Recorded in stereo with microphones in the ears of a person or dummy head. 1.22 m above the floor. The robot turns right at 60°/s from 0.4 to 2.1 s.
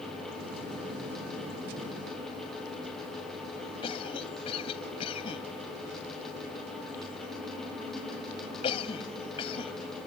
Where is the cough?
35° left (ahead or behind).